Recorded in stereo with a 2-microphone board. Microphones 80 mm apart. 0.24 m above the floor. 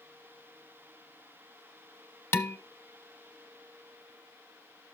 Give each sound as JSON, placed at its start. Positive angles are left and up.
{"t": 2.3, "sound": "dishes clattering", "side_deg": 30, "distance_m": 0.9}